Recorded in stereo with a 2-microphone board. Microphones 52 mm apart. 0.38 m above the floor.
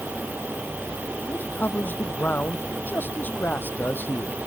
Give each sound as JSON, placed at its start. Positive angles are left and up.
{"t": 1.3, "sound": "a man speaking", "side_deg": 40}